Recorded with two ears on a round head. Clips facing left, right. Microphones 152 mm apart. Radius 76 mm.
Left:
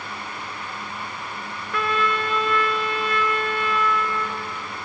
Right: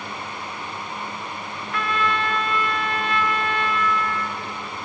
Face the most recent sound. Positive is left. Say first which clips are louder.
# left 1 dB
turn(degrees=85)